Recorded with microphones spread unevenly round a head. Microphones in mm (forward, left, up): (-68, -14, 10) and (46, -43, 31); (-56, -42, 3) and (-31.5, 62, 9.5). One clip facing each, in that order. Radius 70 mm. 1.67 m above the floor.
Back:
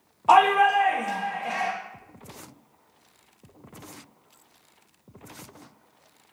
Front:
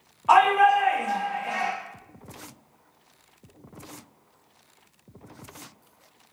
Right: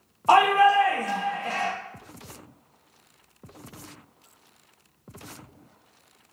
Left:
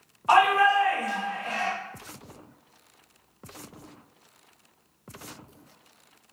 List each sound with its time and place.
0.3 s a shout: 140° right, 0.7 m